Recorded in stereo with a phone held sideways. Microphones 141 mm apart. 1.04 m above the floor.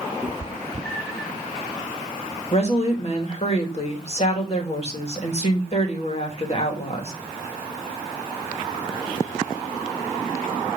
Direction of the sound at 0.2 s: 5° right (ahead or behind).